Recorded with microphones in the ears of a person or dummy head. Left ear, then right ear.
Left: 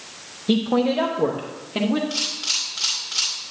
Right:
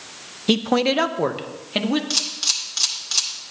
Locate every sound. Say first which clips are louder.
0.5 s a man speaking: right 2 dB; 55° right (ahead or behind), 0.5 m; by 2.0 s 40° right (ahead or behind), 1.4 m
2.1 s a camera shutter: right 2 dB; 70° right (ahead or behind), 2 m